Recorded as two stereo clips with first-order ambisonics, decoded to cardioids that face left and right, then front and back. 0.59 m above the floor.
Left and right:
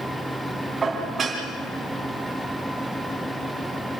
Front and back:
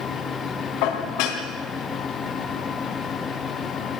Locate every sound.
0.8 s dishes clattering: 15° right, 3 m